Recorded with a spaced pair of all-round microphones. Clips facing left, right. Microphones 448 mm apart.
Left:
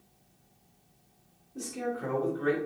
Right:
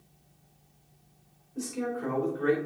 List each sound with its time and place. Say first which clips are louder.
1.6 s a man speaking: right 2 dB; 50° left (ahead or behind), 3 m; by 2.5 s 55° left (ahead or behind), 2.5 m